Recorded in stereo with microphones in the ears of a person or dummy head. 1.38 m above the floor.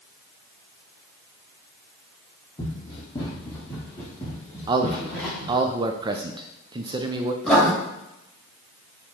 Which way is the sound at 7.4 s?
10° left (ahead or behind).